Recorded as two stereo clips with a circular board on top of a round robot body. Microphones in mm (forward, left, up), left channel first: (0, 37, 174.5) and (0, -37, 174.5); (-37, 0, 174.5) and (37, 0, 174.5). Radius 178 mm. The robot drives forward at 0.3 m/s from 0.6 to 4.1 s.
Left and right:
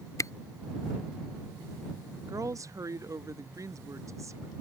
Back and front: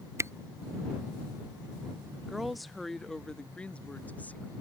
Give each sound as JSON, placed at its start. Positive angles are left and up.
{"t": 0.2, "sound": "a camera shutter", "azimuth_deg": 50}
{"t": 2.3, "sound": "a woman speaking", "azimuth_deg": -85}